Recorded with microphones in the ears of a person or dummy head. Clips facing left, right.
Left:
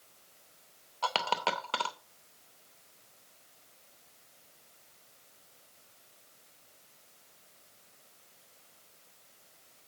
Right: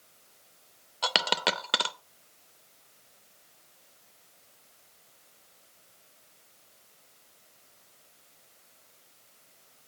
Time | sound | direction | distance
1.0 | a dropped coin | 20° right (ahead or behind) | 0.6 m